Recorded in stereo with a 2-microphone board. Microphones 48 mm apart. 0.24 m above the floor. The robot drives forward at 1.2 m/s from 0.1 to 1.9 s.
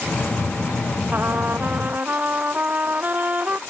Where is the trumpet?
40° right (ahead or behind); by 3.6 s 35° right (ahead or behind).